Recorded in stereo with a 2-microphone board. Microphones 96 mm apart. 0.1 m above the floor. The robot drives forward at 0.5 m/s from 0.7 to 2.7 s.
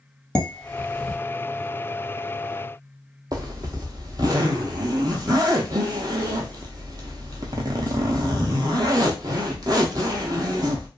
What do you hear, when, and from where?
0.3 s dishes clattering: 10° left (ahead or behind), 1.5 m
3.3 s a zipper: 40° right (ahead or behind), 0.7 m